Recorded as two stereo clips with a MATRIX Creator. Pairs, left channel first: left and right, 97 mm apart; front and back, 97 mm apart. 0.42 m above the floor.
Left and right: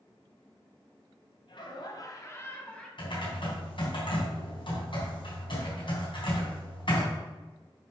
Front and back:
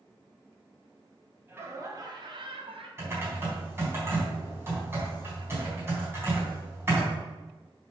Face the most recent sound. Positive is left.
turn(degrees=115)